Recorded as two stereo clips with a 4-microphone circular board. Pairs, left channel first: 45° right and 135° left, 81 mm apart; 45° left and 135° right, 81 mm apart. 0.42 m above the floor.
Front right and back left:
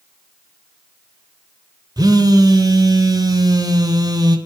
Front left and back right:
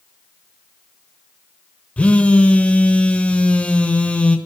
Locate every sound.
2.0 s a phone buzzing: 115° left, 0.8 m